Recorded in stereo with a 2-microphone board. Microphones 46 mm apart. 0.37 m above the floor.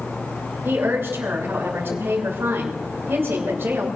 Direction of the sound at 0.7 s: 55° right (ahead or behind).